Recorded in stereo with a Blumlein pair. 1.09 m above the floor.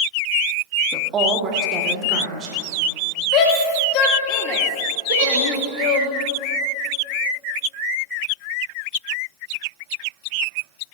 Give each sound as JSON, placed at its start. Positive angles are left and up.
{"t": 0.9, "sound": "a woman speaking", "azimuth_deg": -25, "distance_m": 1.3}
{"t": 3.3, "sound": "a shout", "azimuth_deg": 40, "distance_m": 2.0}
{"t": 5.1, "sound": "a giggle", "azimuth_deg": -55, "distance_m": 4.0}